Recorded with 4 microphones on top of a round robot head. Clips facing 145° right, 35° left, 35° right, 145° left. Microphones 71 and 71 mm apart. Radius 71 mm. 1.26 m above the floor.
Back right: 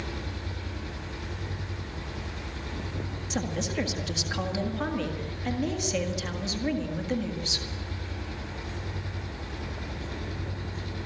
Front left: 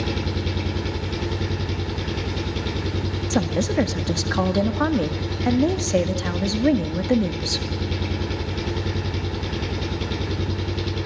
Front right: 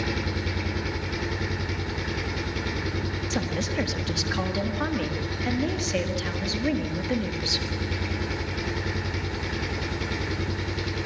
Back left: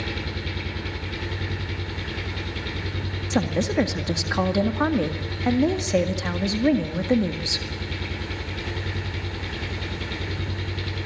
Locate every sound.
0.0 s an engine running: 45° left, 1.8 m
3.3 s a woman speaking: 85° left, 1.8 m